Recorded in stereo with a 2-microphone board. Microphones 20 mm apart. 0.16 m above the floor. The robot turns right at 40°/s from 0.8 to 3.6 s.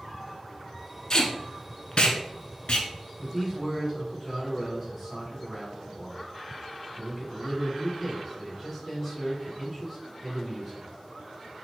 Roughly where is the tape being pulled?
Left.